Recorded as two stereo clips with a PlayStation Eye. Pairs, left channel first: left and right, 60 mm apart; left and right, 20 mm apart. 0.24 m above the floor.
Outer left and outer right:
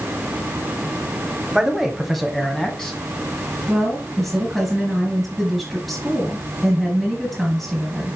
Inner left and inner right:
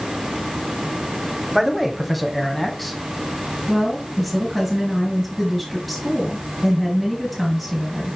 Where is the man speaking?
10° right (ahead or behind), 1.2 m; by 3.0 s 10° left (ahead or behind), 1.8 m.